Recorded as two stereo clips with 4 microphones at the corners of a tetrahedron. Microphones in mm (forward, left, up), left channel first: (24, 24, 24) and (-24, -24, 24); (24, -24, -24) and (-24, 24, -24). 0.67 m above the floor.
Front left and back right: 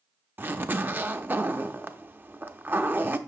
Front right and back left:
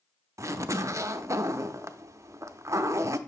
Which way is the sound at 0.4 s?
170° left.